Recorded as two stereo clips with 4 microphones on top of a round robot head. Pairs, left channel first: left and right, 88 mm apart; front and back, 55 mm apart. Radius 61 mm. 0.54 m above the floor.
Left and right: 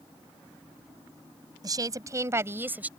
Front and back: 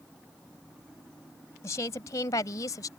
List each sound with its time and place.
1.6 s a woman speaking: 45° right; by 2.9 s 15° right